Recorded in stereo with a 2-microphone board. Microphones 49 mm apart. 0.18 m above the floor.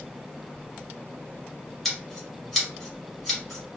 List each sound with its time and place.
1.9 s scissors: centre (ahead or behind), 1.4 m